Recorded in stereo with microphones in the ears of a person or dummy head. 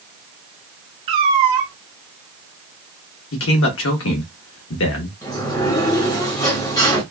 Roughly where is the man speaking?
Left.